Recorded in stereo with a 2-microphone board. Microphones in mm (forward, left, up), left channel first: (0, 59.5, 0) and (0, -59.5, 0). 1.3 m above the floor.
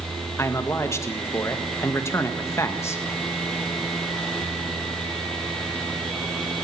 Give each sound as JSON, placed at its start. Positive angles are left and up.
{"t": 0.4, "sound": "a man speaking", "side_deg": 25, "distance_m": 1.8}